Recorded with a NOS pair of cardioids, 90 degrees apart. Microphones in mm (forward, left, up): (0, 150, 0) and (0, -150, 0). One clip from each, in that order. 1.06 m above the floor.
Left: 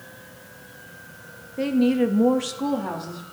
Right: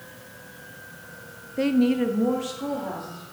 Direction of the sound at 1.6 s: 15° right.